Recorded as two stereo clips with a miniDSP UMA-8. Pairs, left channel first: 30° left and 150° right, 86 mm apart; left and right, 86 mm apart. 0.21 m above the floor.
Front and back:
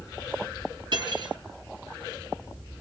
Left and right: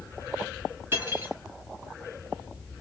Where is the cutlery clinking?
150° right, 1.6 m.